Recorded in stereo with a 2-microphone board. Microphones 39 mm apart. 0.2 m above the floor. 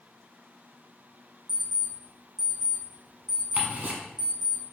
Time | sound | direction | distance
1.5 | an alarm clock | 10° right (ahead or behind) | 2.0 m
3.6 | ticking | 45° right (ahead or behind) | 0.9 m